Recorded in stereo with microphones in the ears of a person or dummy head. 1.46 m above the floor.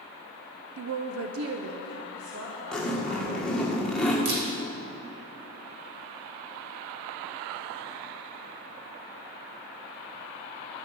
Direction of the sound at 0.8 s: 55° right (ahead or behind).